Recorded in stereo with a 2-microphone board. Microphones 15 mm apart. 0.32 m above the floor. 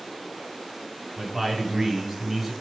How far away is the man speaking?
About 2.5 m.